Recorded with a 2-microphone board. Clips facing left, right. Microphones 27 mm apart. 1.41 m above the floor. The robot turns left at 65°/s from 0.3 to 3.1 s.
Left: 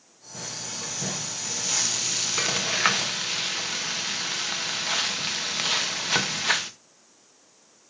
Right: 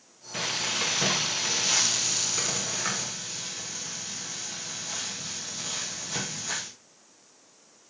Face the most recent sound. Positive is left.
turn(degrees=105)